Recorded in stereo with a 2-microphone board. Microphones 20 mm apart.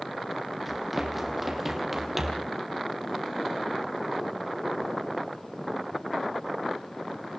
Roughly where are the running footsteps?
Centre.